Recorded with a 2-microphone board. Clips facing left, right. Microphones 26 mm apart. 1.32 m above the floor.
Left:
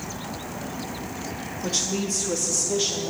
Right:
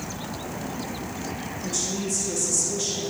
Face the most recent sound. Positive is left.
turn(degrees=30)  # may be behind; listen again after turning